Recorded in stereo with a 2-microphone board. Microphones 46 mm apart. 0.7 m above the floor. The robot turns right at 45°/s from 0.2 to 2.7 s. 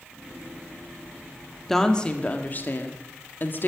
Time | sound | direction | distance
1.7 | a woman speaking | 5° left | 1.6 m